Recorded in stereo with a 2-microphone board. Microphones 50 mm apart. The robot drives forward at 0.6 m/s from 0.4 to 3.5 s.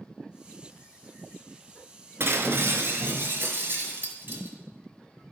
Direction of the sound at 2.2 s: 55° right (ahead or behind).